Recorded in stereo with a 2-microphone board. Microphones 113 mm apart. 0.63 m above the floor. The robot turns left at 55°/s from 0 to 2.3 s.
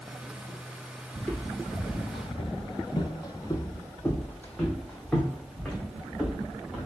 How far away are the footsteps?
About 1.2 m.